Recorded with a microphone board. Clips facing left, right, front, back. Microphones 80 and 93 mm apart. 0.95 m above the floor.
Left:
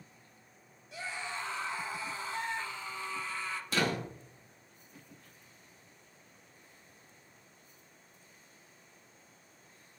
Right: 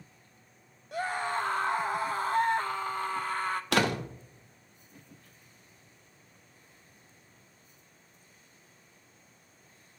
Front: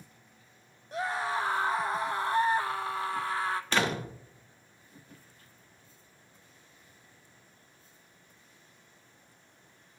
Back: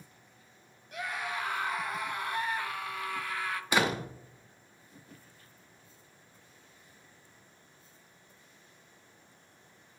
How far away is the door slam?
About 1.0 m.